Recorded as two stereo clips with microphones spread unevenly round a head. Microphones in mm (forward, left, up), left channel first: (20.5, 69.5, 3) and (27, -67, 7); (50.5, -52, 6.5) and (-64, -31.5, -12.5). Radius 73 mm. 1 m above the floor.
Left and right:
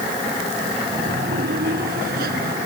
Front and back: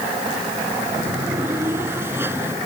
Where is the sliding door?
120° right.